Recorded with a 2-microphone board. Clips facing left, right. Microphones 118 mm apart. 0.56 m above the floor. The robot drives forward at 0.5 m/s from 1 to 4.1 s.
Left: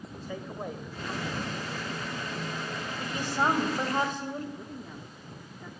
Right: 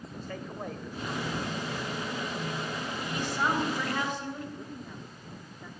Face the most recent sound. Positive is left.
turn(degrees=5)  # may be behind; listen again after turning